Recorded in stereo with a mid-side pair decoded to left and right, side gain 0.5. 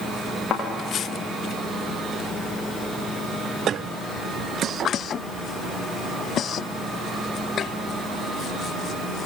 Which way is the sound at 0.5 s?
55° left.